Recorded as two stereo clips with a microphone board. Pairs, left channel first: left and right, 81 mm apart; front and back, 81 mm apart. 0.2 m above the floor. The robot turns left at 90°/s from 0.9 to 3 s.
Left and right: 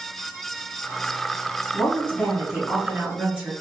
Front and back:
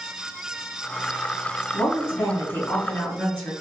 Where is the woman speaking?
65° left, 1.5 m; by 3.5 s 50° right, 1.5 m.